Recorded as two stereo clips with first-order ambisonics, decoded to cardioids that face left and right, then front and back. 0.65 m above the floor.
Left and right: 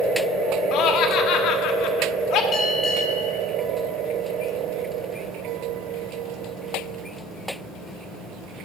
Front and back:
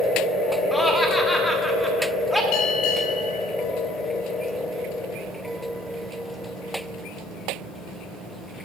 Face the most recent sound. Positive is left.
turn(degrees=20)